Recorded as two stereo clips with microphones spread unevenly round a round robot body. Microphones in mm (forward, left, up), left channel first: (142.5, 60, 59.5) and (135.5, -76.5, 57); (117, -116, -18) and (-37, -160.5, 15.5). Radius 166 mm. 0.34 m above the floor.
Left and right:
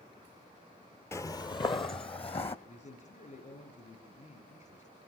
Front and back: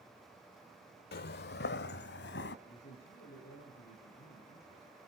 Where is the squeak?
No squeak in this recording.